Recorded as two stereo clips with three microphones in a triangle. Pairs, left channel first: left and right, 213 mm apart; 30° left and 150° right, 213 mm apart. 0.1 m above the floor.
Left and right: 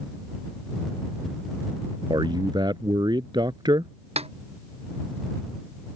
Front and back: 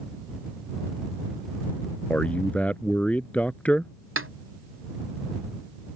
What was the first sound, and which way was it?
A man speaking, 45° right.